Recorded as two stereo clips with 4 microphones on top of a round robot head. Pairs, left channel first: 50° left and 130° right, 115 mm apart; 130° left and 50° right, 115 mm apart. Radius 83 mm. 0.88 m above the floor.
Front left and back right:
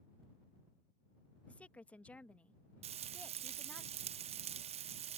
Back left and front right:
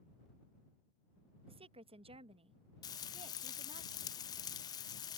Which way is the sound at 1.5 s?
30° right.